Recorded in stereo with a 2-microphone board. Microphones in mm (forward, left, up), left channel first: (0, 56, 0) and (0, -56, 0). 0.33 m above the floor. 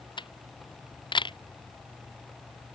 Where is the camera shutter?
50° left (ahead or behind).